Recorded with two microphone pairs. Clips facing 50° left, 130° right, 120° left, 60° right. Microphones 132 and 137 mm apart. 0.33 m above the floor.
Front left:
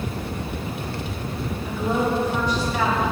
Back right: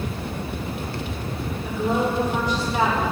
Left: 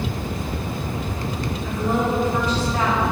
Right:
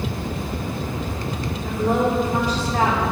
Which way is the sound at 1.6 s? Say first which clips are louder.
Even, right 2 dB; 30° right.